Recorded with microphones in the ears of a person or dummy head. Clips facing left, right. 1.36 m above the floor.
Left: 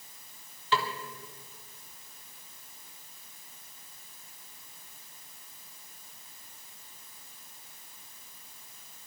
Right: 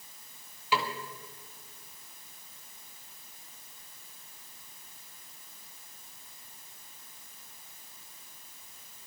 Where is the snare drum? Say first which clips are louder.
Left 1 dB; 15° right (ahead or behind), 1.2 m.